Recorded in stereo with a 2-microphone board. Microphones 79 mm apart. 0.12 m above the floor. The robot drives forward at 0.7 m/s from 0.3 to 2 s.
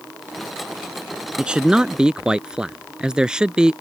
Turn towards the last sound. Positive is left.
turn(degrees=-10)  # may be behind; listen again after turning